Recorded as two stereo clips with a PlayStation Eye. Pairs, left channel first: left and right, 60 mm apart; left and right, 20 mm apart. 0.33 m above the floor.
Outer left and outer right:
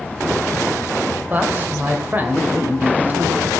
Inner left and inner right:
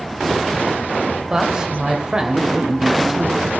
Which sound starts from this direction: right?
A man speaking, at 1.3 s.